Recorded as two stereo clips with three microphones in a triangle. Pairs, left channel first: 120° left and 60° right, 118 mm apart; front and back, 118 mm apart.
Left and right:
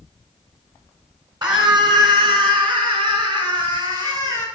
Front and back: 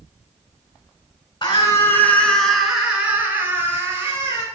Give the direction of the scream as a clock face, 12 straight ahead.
1 o'clock.